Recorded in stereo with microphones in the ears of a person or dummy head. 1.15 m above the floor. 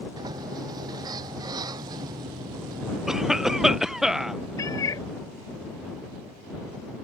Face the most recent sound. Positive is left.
turn(degrees=20)  # may be behind; listen again after turning